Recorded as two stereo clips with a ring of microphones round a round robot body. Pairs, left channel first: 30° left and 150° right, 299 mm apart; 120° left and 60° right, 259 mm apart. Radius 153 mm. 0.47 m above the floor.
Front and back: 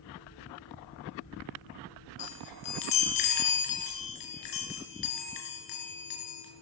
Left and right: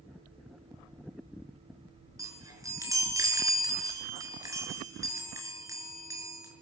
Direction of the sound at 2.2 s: 15° left.